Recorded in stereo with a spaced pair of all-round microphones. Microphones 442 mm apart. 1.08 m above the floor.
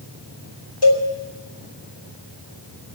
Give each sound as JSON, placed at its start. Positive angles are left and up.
{"t": 0.8, "sound": "a cowbell", "side_deg": 70, "distance_m": 3.5}